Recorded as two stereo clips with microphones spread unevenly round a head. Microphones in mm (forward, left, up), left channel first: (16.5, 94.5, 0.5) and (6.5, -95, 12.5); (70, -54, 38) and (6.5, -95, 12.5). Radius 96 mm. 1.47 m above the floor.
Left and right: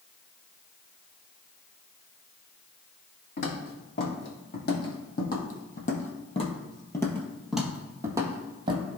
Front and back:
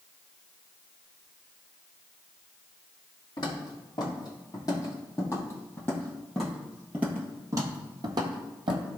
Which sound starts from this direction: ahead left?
Footsteps, at 3.4 s.